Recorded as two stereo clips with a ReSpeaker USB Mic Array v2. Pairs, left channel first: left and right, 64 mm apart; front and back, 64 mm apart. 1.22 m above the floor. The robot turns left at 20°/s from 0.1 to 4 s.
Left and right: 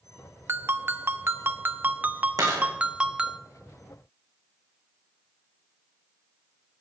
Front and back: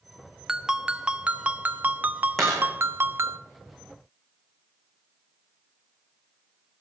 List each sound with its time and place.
0.5 s a ringtone: 105° right, 0.5 m; by 3.4 s 160° right, 0.5 m
2.4 s a dropped coin: 85° right, 5.5 m; by 2.7 s 90° right, 5.5 m